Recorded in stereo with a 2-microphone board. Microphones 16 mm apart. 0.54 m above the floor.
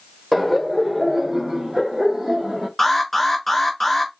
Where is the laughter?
10° right (ahead or behind), 1.6 m; by 2.7 s 55° right (ahead or behind), 1.5 m.